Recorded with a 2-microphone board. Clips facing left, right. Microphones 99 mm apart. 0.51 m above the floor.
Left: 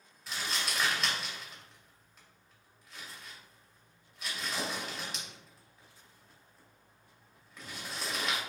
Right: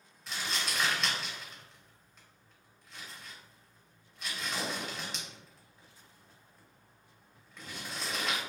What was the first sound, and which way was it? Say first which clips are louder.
Crumpling: even; 5° left (ahead or behind).